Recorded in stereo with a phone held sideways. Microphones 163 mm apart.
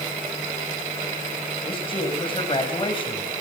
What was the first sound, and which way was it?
A man speaking, 35° left (ahead or behind).